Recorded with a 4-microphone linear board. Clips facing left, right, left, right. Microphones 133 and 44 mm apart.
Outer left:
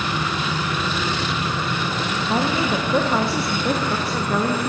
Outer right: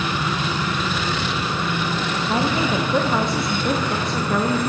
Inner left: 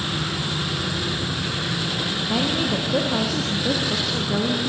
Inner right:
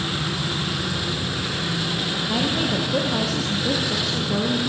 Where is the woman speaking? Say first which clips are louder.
Even, even; 5° left (ahead or behind), 0.5 m.